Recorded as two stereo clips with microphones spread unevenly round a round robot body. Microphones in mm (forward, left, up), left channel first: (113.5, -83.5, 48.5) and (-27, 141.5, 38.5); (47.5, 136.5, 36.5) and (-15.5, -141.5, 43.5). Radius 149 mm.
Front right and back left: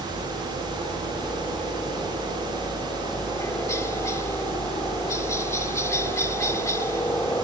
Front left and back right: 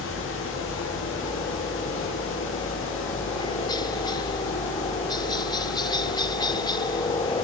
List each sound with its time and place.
0.0 s a helicopter: 15° left